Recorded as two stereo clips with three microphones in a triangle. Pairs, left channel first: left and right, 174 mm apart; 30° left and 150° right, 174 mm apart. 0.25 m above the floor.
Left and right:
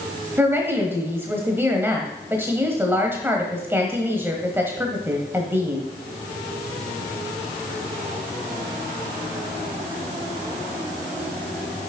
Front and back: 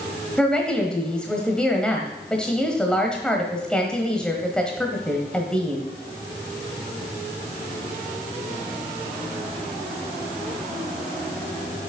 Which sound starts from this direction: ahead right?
A woman speaking, at 0.4 s.